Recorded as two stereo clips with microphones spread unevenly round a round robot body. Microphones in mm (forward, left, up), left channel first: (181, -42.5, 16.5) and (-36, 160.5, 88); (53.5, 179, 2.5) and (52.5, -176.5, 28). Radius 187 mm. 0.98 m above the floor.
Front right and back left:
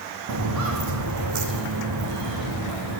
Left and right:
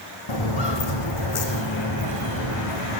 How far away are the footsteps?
About 3 m.